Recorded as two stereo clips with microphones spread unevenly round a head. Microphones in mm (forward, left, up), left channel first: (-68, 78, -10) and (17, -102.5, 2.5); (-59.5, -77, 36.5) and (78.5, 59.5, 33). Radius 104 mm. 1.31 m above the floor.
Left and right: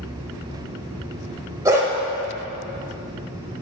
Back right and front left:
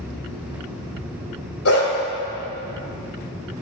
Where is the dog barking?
135° right, 2.0 m.